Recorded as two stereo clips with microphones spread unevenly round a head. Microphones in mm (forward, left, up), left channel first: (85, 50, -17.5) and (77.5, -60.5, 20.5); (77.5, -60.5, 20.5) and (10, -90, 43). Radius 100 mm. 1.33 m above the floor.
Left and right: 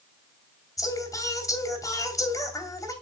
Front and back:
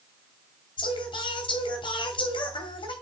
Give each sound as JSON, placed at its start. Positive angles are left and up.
{"t": 0.8, "sound": "singing", "azimuth_deg": 20, "distance_m": 2.5}